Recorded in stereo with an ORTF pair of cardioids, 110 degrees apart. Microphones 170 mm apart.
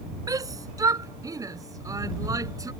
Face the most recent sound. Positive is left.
turn(degrees=-20)